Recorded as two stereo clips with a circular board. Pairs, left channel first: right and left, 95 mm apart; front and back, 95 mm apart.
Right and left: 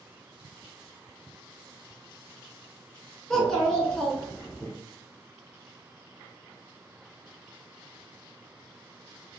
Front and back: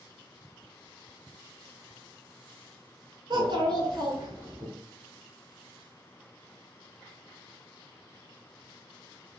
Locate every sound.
3.3 s a child speaking: 170° right, 0.9 m